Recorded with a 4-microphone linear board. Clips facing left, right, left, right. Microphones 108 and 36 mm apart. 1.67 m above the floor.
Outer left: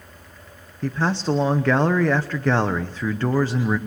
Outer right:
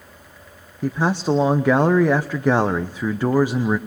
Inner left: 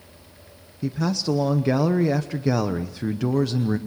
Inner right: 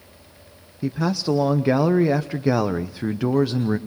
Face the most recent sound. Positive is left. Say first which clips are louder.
# outer right 2 dB, inner right 2 dB
turn(degrees=-15)  # may be behind; listen again after turning